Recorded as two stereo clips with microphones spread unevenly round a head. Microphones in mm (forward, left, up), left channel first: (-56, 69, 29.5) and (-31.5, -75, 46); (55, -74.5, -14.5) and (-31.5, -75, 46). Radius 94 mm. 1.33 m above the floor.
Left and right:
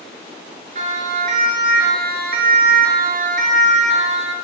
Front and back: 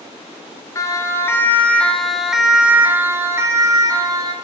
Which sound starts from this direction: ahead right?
A siren, at 0.8 s.